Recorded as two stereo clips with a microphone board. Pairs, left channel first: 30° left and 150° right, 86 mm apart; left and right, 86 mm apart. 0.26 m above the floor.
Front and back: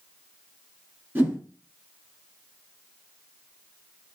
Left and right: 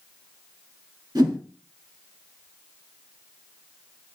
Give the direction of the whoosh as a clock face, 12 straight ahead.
3 o'clock.